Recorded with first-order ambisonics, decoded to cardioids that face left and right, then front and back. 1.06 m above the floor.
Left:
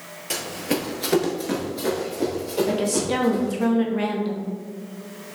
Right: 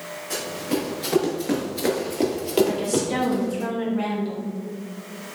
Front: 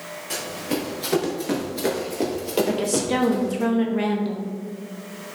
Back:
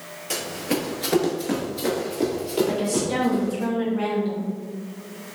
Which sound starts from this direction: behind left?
Running footsteps, at 0.3 s.